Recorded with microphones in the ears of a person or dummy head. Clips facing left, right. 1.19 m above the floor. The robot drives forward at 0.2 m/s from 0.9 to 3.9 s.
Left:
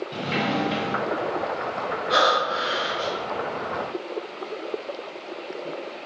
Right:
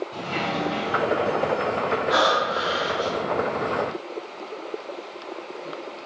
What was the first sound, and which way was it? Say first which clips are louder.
A sliding door: left 2 dB; 30° left (ahead or behind).